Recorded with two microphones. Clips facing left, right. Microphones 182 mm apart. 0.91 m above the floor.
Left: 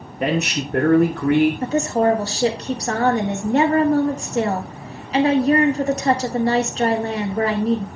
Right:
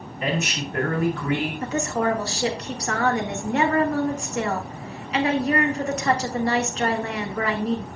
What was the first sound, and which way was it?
A man speaking, 60° left (ahead or behind).